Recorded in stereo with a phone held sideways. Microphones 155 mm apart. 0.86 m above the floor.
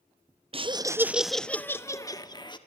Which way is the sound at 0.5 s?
40° right (ahead or behind).